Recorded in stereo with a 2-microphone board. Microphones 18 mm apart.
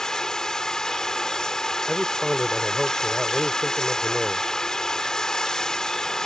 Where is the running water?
45° left (ahead or behind).